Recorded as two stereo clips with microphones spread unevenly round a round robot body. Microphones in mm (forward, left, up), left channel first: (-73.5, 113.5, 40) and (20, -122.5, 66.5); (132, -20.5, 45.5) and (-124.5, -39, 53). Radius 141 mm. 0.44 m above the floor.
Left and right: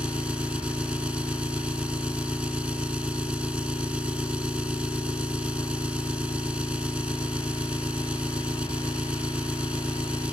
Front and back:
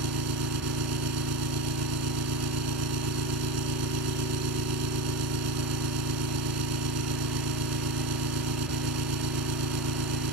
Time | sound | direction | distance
0.0 | an engine running | 155° right | ?